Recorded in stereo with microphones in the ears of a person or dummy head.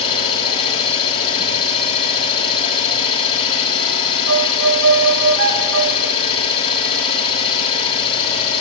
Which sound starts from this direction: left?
An engine running, at 0.0 s.